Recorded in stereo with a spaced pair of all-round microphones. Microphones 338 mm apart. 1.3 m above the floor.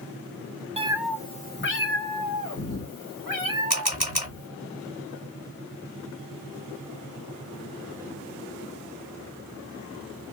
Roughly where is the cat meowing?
Centre.